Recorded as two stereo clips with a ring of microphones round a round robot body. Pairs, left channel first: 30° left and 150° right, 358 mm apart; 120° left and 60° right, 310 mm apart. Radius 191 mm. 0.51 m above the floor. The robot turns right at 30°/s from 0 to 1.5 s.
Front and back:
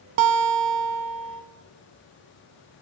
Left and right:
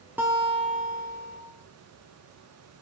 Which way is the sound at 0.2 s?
145° right.